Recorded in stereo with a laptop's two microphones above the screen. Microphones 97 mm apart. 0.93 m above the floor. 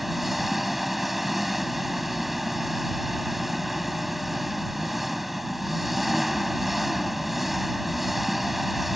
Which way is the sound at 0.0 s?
Centre (ahead or behind).